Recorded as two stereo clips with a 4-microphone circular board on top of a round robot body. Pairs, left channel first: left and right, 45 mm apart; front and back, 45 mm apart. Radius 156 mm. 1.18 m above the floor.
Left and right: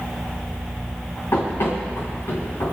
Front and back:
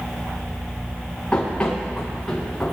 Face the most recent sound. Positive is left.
turn(degrees=80)